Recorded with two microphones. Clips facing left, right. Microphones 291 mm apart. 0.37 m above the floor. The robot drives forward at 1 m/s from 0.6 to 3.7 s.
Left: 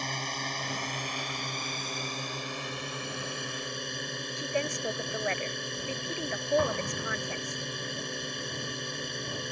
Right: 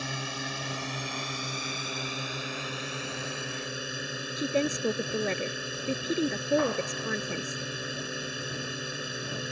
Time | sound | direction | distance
0.0 | a drone | 10° right (ahead or behind) | ?
4.4 | a woman speaking | 45° right (ahead or behind) | ?
6.6 | an explosion | 45° left (ahead or behind) | ?